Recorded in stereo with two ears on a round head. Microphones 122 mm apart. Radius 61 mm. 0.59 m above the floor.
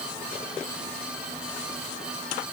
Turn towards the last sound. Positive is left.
No sound to turn to.